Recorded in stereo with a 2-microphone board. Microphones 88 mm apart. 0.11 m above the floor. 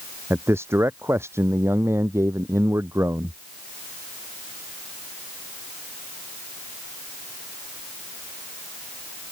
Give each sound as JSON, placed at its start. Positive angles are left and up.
{"t": 0.3, "sound": "a man speaking", "side_deg": -30}